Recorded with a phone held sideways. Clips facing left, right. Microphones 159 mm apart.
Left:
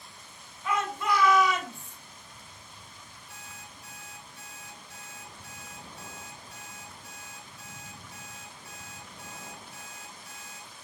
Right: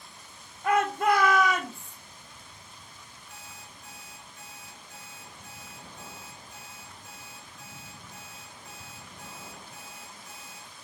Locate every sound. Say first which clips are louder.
0.6 s a shout: right 6 dB; 55° right (ahead or behind), 1.9 m
3.3 s an alarm clock: even; 10° left (ahead or behind), 4.5 m